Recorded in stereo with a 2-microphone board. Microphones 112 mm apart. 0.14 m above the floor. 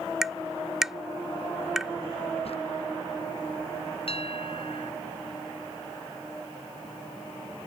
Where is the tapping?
5° right (ahead or behind).